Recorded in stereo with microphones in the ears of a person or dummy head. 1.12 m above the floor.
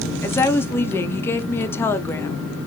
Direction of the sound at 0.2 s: 15° left (ahead or behind).